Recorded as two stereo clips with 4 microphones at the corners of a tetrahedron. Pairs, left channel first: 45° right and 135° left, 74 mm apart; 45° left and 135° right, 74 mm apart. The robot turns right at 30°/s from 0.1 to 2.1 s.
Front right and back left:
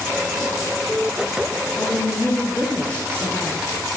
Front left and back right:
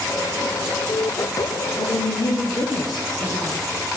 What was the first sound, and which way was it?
A woman speaking, 20° left.